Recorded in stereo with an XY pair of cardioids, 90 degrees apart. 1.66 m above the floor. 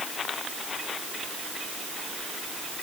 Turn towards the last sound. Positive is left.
No sound to turn to.